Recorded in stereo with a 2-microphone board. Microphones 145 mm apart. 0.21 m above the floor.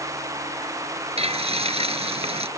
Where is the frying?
45° right (ahead or behind).